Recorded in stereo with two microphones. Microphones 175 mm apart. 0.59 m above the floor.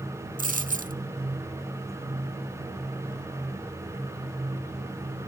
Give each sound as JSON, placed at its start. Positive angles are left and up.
{"t": 0.4, "sound": "a dropped coin", "side_deg": -50, "distance_m": 0.6}